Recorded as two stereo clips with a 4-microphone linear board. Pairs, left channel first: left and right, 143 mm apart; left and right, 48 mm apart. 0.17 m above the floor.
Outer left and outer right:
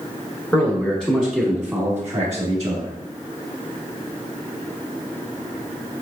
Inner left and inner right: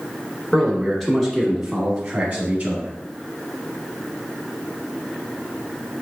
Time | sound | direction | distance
0.5 | a man speaking | 15° left (ahead or behind) | 1.1 m